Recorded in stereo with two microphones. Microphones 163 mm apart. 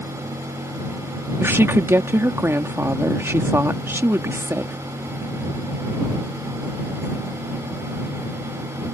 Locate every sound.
1.4 s a woman speaking: 15° right (ahead or behind)